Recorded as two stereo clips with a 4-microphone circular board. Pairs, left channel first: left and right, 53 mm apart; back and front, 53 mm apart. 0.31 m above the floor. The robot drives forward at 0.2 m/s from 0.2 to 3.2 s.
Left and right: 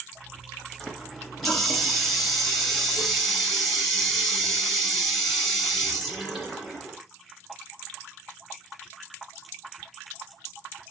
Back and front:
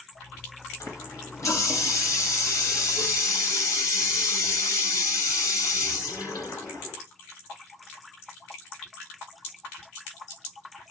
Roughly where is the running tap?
Behind.